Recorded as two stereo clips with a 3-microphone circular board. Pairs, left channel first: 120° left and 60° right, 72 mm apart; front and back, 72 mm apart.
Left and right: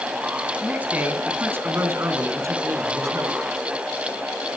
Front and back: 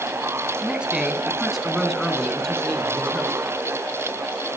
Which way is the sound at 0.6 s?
120° right.